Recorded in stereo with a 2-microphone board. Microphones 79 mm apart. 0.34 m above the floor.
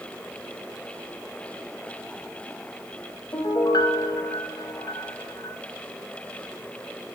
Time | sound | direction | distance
3.3 | a piano | 55° left (ahead or behind) | 0.7 m